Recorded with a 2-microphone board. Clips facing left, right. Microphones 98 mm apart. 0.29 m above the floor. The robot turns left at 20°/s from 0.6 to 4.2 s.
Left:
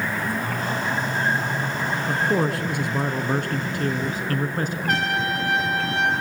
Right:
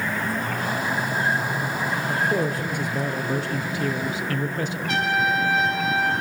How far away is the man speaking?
About 3.5 m.